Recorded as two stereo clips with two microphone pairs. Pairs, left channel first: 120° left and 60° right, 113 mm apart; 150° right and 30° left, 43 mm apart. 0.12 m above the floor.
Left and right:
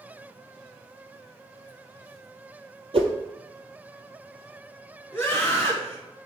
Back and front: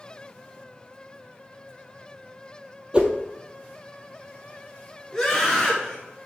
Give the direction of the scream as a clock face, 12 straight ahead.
7 o'clock.